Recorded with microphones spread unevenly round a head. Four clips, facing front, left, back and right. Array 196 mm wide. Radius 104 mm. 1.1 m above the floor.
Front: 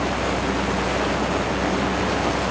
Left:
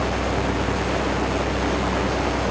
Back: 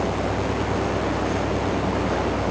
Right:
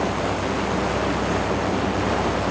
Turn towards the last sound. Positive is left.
No sound to turn to.